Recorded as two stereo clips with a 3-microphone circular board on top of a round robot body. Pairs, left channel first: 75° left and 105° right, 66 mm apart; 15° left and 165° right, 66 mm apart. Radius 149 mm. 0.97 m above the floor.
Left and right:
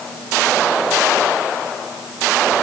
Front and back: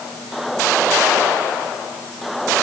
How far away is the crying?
I don't hear crying.